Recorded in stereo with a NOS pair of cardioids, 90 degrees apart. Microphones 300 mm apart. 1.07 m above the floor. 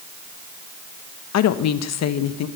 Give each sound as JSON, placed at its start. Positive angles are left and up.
{"t": 1.3, "sound": "a woman speaking", "azimuth_deg": 60, "distance_m": 1.0}